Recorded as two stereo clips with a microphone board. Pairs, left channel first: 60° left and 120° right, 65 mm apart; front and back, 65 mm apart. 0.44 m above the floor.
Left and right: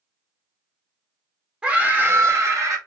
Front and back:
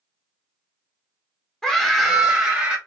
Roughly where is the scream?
Ahead right.